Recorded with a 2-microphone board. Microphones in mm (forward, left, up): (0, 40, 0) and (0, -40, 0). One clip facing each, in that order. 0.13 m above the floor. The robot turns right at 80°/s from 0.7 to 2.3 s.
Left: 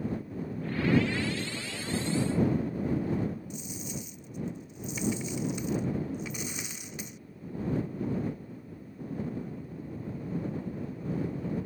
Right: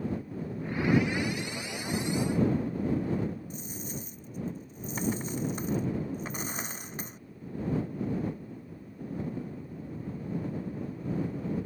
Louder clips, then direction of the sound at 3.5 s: Even; 40° right (ahead or behind).